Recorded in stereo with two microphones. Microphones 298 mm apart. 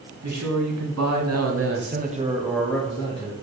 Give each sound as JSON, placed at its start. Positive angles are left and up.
{"t": 0.2, "sound": "a man speaking", "side_deg": -65, "distance_m": 1.5}